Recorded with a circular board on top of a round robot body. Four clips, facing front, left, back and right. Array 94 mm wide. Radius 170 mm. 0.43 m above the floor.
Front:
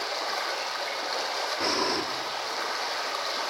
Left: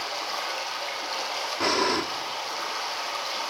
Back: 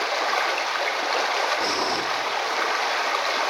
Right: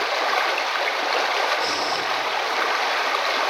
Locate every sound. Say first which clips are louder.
0.0 s running water: right 10 dB, back 7 dB; 120° right, 1.1 m
1.6 s breathing: even, back 3 dB; 80° left, 1.7 m